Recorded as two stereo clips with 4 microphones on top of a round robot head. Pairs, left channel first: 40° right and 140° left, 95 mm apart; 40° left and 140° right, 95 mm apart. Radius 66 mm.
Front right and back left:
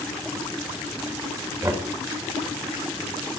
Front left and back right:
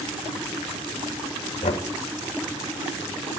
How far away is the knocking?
About 1.8 m.